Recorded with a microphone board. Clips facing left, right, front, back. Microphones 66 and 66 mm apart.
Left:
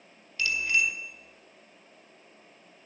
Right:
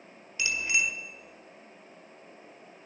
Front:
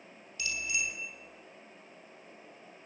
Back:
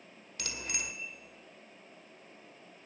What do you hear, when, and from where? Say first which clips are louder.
0.4 s a bicycle bell: left 2 dB, front 5 dB; 160° right, 2 m